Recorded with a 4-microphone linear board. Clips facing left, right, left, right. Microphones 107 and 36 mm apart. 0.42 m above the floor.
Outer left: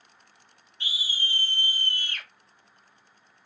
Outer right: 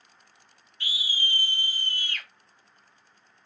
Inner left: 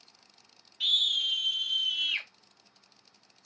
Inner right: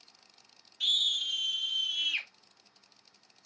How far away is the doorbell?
No doorbell in this recording.